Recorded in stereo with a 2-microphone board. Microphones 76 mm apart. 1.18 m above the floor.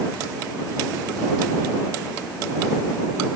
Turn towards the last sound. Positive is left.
No sound to turn to.